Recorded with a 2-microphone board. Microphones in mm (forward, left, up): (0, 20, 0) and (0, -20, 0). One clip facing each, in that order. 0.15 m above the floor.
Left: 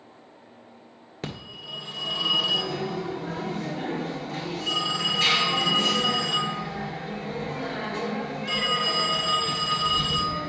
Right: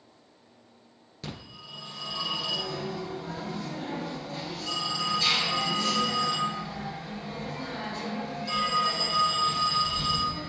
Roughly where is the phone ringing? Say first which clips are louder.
Left 5 dB; left.